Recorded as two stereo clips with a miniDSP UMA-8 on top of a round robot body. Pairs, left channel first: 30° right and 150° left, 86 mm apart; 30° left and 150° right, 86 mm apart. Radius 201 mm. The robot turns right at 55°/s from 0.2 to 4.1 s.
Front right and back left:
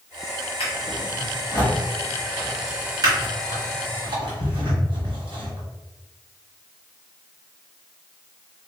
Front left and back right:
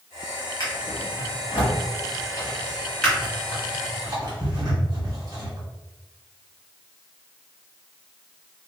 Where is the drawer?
20° right, 1.3 m; by 5.6 s 170° left, 1.3 m.